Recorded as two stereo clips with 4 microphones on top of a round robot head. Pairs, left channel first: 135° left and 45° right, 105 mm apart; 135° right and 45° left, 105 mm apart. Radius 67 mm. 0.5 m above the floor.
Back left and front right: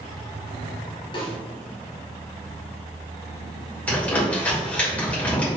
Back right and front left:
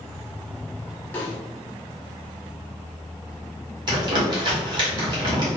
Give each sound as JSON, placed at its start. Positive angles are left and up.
{"t": 1.1, "sound": "a snare drum", "azimuth_deg": 155, "distance_m": 1.4}
{"t": 3.9, "sound": "crumpling", "azimuth_deg": 65, "distance_m": 1.8}